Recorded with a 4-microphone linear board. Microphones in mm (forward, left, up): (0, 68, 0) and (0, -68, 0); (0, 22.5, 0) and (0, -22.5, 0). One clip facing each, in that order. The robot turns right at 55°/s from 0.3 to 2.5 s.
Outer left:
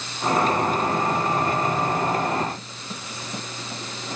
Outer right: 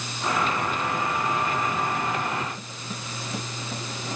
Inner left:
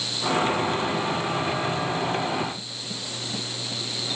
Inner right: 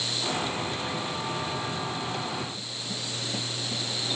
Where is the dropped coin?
I don't hear a dropped coin.